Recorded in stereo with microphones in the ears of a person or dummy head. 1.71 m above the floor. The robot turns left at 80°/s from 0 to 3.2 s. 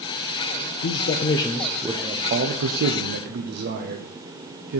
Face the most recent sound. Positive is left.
turn(degrees=-120)